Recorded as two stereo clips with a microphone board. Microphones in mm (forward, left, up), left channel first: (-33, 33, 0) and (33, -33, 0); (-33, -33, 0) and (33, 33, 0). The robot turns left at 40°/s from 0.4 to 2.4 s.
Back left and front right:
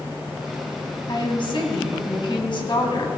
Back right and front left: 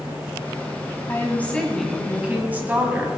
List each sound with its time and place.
1.1 s a woman speaking: 165° left, 2 m; by 3.1 s 115° left, 2 m